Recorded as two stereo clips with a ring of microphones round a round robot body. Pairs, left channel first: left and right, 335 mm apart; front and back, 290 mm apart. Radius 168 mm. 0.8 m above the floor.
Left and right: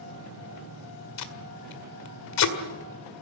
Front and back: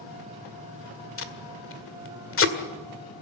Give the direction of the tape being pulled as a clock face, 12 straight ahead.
10 o'clock.